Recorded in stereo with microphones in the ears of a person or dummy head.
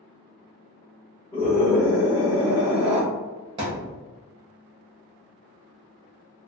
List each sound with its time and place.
1.3 s a scream: 20° left (ahead or behind), 1.3 m; by 3.0 s 30° right (ahead or behind), 0.5 m
3.6 s a thud: 25° right (ahead or behind), 0.9 m